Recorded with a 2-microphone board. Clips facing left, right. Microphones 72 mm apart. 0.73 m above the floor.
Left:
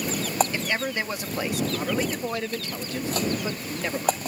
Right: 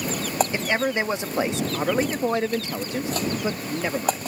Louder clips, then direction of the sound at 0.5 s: Right 4 dB; 25° right (ahead or behind).